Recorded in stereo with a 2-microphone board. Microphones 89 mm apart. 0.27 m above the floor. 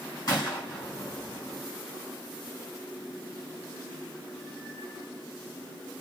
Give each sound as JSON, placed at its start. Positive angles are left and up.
{"t": 0.3, "sound": "a gunshot", "side_deg": 45, "distance_m": 2.0}